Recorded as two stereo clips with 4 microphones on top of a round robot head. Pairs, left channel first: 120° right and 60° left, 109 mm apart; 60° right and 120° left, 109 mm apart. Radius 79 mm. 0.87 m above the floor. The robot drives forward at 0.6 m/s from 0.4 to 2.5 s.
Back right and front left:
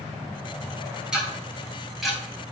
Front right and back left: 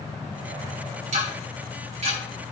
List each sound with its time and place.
1.1 s ticking: 140° left, 3 m; by 2.2 s 150° left, 3.5 m